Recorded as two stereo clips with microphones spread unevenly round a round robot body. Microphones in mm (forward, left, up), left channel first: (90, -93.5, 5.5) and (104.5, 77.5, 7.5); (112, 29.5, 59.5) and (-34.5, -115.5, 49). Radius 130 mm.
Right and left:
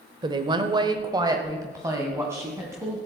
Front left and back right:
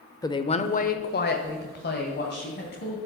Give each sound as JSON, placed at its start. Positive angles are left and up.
{"t": 0.2, "sound": "a woman speaking", "azimuth_deg": 100, "distance_m": 1.0}